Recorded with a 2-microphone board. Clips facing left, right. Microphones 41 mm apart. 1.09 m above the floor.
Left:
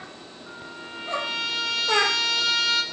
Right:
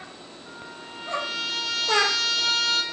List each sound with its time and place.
0.5 s a trumpet: centre (ahead or behind), 1.9 m